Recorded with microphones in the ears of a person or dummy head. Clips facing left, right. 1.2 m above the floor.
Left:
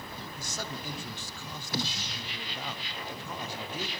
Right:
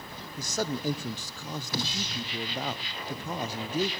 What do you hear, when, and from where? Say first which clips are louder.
0.4 s a man speaking: right 10 dB; 35° right (ahead or behind), 0.5 m